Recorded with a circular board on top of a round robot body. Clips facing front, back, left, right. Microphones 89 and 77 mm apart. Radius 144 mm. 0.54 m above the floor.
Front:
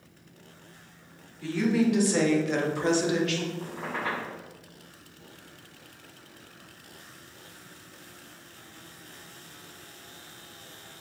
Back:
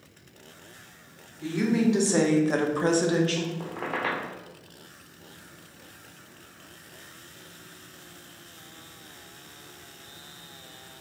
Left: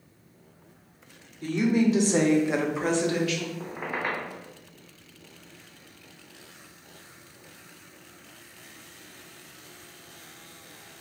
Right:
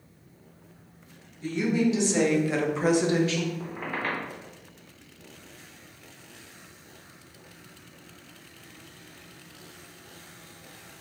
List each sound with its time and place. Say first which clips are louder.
1.4 s a woman speaking: back 1 dB, left 2 dB; 110° left, 1.7 m; by 3.5 s 125° right, 1.2 m
3.6 s a squeak: back 2 dB, left 1 dB; 165° left, 0.9 m